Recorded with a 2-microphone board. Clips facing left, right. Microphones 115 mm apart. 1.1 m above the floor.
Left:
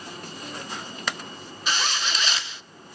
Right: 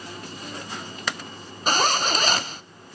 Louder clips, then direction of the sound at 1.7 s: Right 7 dB; 45° right (ahead or behind).